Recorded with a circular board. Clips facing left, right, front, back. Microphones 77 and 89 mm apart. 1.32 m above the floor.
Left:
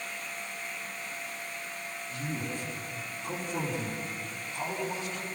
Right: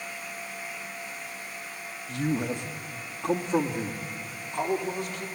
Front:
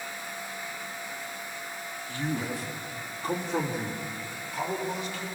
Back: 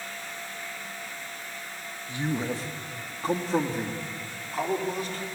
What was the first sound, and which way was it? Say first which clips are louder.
A man speaking: right 9 dB, back 2 dB; 110° right.